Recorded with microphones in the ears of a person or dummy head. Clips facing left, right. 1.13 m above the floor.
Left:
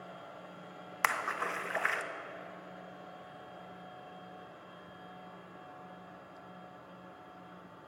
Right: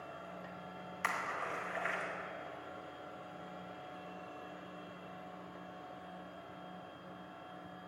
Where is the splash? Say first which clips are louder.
Left 4 dB; 75° left (ahead or behind), 0.8 m.